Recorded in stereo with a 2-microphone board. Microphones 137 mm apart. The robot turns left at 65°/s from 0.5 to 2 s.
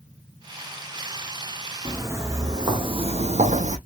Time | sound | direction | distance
1.9 | footsteps | 25° right (ahead or behind) | 1.2 m